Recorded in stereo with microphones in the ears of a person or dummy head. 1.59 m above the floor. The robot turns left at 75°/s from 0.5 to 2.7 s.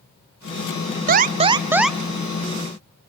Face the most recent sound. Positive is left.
turn(degrees=120)